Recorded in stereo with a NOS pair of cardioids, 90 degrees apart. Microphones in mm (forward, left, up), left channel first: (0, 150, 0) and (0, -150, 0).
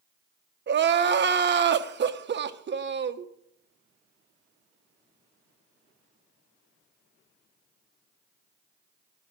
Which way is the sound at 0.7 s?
40° right.